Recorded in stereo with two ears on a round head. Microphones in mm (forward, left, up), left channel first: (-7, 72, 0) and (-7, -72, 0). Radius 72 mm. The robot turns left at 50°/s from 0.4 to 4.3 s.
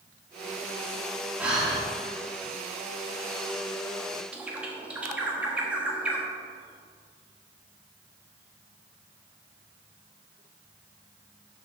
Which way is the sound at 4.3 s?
10° right (ahead or behind).